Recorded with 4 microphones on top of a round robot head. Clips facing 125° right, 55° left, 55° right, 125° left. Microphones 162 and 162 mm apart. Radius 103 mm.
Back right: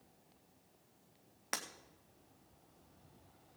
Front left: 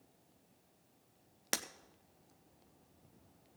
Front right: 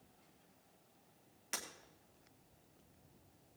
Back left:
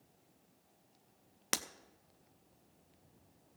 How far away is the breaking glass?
About 0.6 m.